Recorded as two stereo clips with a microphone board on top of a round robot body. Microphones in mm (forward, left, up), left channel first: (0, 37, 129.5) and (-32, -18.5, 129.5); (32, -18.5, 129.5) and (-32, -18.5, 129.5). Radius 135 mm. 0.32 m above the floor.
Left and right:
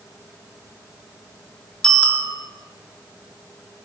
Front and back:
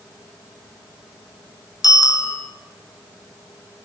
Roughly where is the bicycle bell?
Ahead.